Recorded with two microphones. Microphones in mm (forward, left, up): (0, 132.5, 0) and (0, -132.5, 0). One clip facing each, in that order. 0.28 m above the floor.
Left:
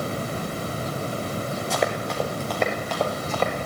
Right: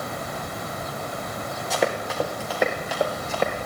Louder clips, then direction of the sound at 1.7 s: Right 2 dB; centre (ahead or behind).